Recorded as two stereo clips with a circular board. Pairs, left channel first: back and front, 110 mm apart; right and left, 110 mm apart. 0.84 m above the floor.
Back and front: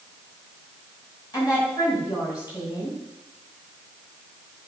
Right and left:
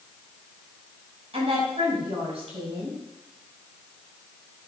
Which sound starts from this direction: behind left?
A woman speaking, at 1.3 s.